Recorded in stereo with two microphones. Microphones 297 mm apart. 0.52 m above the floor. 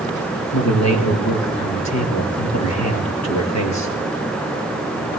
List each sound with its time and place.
0.5 s a man speaking: 60° left (ahead or behind), 9 m